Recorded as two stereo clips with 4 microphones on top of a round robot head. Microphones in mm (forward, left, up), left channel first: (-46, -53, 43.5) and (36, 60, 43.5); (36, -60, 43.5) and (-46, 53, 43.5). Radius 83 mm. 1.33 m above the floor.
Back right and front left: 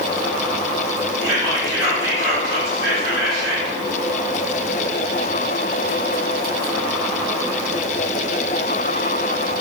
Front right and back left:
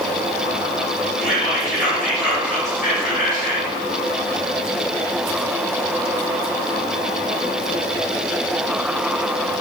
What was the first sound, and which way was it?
Whispering, 15° right.